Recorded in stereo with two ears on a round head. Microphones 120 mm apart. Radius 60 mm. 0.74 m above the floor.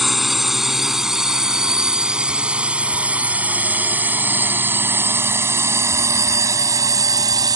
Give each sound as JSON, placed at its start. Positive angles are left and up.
{"t": 0.0, "sound": "a drone", "side_deg": 0}